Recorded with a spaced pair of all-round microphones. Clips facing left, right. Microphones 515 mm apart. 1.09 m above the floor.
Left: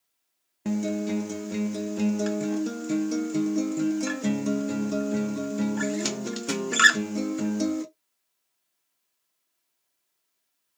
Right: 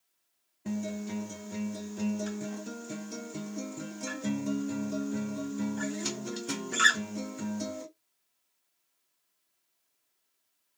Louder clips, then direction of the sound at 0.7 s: Left 8 dB; 85° left.